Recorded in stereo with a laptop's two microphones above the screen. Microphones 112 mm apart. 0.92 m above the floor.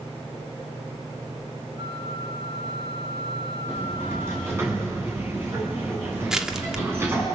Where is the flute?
45° right (ahead or behind), 4 m.